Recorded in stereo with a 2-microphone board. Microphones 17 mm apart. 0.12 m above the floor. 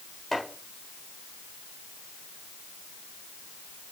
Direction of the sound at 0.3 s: 30° left (ahead or behind).